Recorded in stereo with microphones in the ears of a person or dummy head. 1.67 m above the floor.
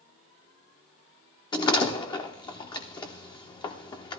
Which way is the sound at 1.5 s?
15° left (ahead or behind).